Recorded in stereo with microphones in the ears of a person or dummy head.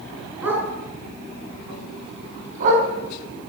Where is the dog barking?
15° right (ahead or behind), 5 m; by 2.9 s 55° right (ahead or behind), 4 m.